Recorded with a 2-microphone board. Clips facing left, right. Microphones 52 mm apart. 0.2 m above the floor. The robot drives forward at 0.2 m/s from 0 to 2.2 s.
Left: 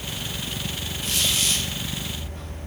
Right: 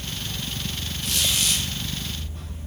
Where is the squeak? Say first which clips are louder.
Even; 35° left (ahead or behind), 1.3 m.